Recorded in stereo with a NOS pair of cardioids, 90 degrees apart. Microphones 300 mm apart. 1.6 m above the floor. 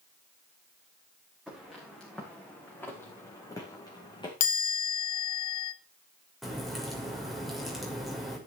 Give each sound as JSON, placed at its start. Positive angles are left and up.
{"t": 1.5, "sound": "footsteps", "azimuth_deg": 0, "distance_m": 8.0}
{"t": 4.4, "sound": "a chime", "azimuth_deg": 70, "distance_m": 1.0}
{"t": 6.4, "sound": "a crack", "azimuth_deg": 0, "distance_m": 6.5}